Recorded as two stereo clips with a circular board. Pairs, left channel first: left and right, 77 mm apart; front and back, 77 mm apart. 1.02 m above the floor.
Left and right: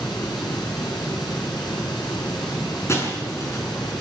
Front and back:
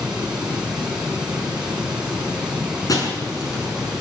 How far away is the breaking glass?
About 6.5 m.